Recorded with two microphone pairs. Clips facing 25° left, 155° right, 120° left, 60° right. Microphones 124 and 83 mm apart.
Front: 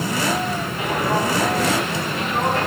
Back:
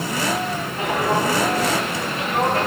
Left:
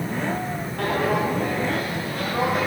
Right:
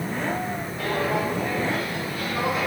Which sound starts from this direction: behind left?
Footsteps, at 0.8 s.